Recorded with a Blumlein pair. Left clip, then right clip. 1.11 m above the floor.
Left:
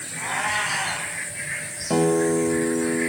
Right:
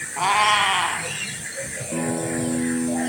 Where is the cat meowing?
50° right, 3.5 m.